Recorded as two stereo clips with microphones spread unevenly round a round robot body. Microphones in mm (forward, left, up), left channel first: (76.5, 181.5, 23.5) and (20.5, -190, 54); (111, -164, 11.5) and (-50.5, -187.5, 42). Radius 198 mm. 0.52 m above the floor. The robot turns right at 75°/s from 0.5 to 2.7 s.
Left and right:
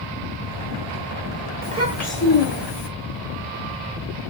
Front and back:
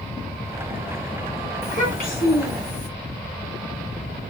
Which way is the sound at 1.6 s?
35° right.